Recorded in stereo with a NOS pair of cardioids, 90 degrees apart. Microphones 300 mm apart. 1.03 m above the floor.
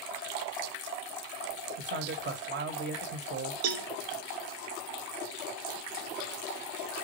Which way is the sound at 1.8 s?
40° right.